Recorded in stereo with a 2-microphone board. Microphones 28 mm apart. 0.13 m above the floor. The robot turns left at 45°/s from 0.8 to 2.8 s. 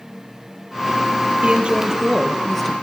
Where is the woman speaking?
135° right, 3 m; by 2.7 s 170° left, 3 m.